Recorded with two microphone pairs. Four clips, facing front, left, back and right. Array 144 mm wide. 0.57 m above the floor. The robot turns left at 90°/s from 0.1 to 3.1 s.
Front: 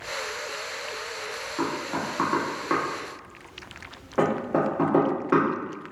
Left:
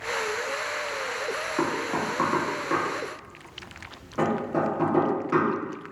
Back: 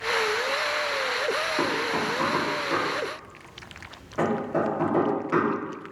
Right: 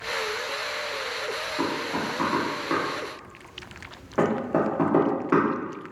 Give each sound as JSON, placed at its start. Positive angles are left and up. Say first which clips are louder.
{"t": 1.6, "sound": "knocking", "louder": "left 1 dB, back 3 dB", "azimuth_deg": 90, "distance_m": 0.9}